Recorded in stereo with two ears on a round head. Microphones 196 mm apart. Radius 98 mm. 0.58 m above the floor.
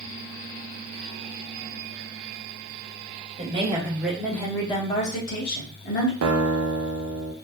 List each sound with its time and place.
3.4 s a woman speaking: 25° right (ahead or behind), 1.0 m; by 6.1 s 55° left (ahead or behind), 1.3 m
6.2 s a guitar: 75° right (ahead or behind), 0.6 m